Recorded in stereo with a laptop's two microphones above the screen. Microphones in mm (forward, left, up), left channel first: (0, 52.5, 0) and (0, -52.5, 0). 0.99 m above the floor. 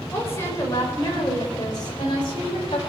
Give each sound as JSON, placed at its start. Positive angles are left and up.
{"t": 0.1, "sound": "a woman speaking", "side_deg": 25, "distance_m": 4.0}